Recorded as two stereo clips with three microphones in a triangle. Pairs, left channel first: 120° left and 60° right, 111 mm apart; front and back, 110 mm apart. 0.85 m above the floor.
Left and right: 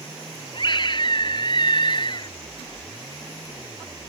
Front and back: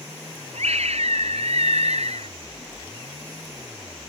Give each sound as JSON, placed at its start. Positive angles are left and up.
{"t": 0.5, "sound": "a scream", "azimuth_deg": 165}